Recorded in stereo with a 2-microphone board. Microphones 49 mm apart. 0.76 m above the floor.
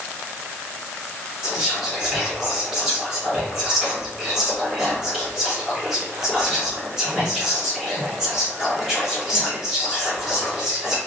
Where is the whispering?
15° right (ahead or behind), 1.3 m.